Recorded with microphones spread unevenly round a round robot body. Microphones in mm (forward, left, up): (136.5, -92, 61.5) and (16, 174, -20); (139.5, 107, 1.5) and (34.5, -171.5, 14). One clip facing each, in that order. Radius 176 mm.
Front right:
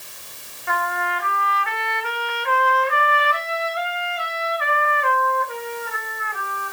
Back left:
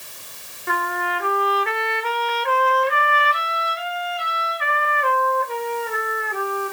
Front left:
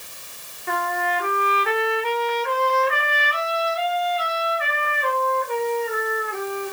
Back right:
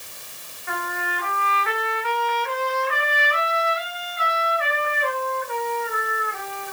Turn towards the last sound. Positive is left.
turn(degrees=115)